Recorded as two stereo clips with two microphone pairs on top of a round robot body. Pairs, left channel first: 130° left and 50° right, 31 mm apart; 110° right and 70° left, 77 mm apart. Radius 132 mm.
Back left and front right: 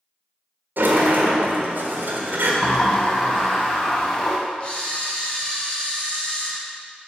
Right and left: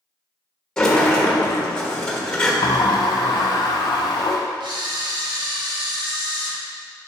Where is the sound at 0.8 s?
35° right, 1.2 m.